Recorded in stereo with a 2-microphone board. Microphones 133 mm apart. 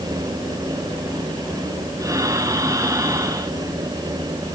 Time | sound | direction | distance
2.0 | breathing | 25° right (ahead or behind) | 2.5 m